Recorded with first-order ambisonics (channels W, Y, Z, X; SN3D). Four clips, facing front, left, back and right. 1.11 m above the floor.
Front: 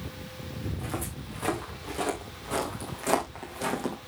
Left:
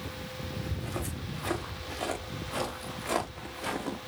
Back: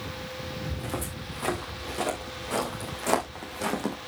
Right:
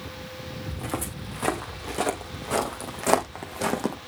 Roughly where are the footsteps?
Right.